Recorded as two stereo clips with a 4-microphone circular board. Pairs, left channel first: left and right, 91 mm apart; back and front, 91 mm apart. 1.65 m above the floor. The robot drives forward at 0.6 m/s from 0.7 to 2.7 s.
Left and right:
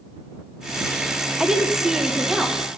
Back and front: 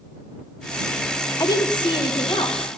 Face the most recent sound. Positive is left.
turn(degrees=-175)